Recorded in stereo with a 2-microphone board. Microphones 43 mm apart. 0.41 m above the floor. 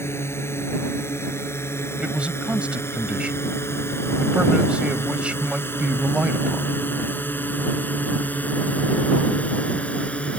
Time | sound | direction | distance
0.0 | a drone | 75° left (ahead or behind) | ?
2.0 | a man speaking | 30° right (ahead or behind) | ?